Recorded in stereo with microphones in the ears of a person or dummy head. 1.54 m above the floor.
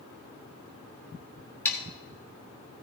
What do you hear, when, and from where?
1.6 s sawing: 15° left (ahead or behind), 2.5 m